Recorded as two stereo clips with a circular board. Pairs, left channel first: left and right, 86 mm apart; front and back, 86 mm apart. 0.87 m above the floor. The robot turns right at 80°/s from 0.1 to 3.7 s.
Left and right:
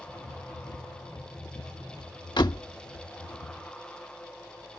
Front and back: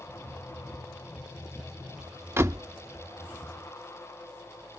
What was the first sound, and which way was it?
A door slam, 120° left.